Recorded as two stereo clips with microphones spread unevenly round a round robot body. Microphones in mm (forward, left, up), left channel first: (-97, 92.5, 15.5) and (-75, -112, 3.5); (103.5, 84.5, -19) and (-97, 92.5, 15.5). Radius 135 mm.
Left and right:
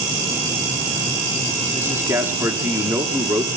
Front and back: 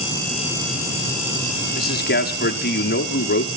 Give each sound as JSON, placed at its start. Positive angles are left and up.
{"t": 1.7, "sound": "a man speaking", "azimuth_deg": -5, "distance_m": 1.8}